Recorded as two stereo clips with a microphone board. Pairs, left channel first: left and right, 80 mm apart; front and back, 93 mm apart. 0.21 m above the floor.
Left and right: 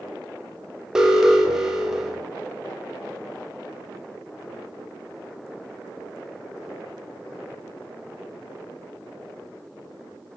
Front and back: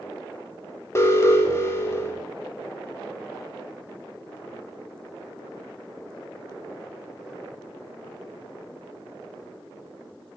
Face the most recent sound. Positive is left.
turn(degrees=-15)